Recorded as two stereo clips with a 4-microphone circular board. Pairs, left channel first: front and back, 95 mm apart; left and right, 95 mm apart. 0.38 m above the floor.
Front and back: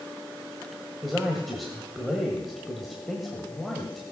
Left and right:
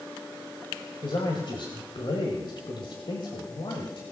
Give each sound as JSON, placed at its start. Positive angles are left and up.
{"t": 1.0, "sound": "a man speaking", "azimuth_deg": 90, "distance_m": 1.5}